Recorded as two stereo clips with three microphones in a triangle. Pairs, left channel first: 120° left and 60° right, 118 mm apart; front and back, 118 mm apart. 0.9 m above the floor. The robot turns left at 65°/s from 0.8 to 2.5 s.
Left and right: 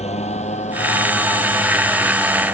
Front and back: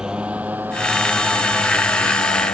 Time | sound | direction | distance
0.0 | a motorcycle | 95° left | ?